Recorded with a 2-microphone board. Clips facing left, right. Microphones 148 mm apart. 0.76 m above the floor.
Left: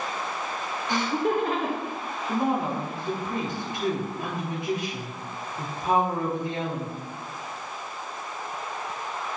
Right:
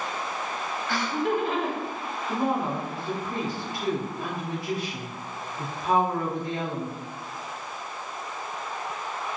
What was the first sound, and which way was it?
Laughter, 20° left (ahead or behind).